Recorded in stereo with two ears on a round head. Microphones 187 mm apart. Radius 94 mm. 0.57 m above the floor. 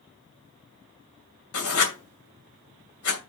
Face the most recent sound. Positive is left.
turn(degrees=75)  # may be behind; listen again after turning